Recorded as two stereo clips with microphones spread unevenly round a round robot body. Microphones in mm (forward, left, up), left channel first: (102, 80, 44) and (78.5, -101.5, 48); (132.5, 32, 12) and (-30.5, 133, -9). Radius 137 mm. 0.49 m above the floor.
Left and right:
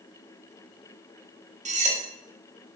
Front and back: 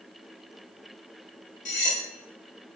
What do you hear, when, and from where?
1.6 s cutlery clinking: 70° right, 0.6 m